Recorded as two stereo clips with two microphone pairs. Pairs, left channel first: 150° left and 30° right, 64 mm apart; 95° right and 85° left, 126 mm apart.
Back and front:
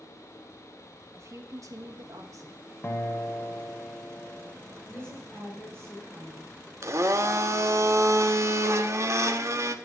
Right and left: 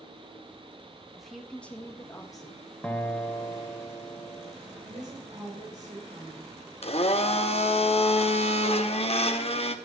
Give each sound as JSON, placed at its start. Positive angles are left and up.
{"t": 1.1, "sound": "a woman speaking", "azimuth_deg": 0, "distance_m": 1.5}
{"t": 2.8, "sound": "a guitar", "azimuth_deg": -170, "distance_m": 0.9}
{"t": 4.9, "sound": "a woman speaking", "azimuth_deg": 75, "distance_m": 4.0}
{"t": 6.8, "sound": "a blender", "azimuth_deg": -65, "distance_m": 0.7}